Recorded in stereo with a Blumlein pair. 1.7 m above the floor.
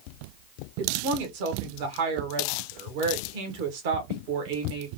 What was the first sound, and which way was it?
A woman speaking, 50° right.